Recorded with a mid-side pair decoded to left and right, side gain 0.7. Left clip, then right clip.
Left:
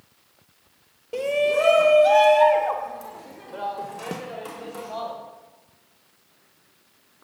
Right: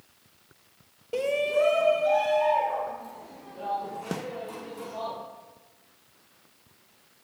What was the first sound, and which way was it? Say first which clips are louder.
A shout: left 4 dB; straight ahead.